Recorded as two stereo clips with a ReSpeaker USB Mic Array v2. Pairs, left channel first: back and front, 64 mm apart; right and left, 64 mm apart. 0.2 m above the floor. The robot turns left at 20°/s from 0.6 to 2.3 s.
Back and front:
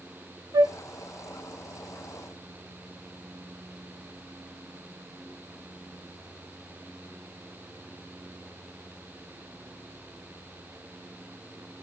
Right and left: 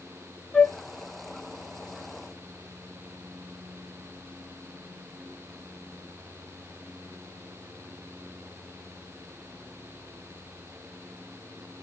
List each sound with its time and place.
0.5 s a flute: 5° right, 0.7 m; by 0.7 s 10° right, 0.7 m